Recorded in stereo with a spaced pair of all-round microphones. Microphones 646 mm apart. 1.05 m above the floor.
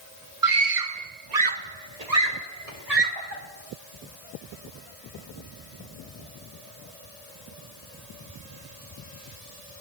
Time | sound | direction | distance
0.4 | a scream | 30° right (ahead or behind) | 0.9 m